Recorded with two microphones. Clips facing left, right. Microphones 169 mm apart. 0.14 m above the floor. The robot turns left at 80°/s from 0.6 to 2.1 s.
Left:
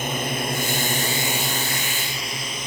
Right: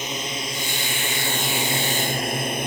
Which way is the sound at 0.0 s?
60° left (ahead or behind).